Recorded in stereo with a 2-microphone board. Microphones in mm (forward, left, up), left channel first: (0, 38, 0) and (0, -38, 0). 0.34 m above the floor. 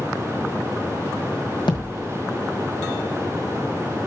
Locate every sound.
1.7 s a thud: 75° left (ahead or behind), 1.4 m